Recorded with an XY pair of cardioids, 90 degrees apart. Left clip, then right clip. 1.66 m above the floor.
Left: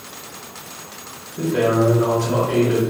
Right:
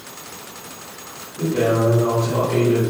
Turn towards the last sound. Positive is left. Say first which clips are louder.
# left 1 dB
turn(degrees=70)